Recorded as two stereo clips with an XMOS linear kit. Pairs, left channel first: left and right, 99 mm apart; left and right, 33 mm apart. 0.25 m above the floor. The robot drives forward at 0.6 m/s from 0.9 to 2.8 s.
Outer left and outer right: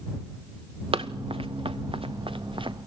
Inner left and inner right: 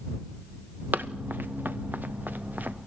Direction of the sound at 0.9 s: 75° right (ahead or behind).